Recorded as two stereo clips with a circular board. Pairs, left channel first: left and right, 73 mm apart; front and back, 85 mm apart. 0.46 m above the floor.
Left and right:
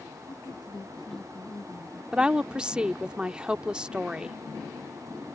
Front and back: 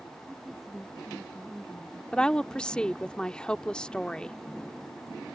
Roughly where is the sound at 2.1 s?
Ahead right.